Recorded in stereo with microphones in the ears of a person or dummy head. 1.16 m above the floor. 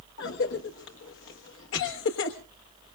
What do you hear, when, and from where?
0.2 s a cough: 75° left (ahead or behind), 1.4 m